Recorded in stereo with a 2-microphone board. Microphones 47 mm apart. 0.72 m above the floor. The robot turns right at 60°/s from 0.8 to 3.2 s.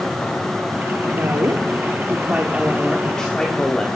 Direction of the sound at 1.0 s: 110° right.